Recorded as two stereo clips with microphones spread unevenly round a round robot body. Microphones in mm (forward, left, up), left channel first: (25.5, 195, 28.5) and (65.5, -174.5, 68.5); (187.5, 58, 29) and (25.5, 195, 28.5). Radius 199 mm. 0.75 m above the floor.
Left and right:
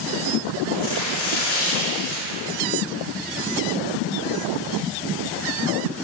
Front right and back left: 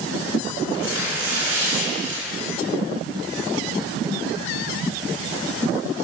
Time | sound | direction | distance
0.7 | tearing paper | 150° left | 3.5 m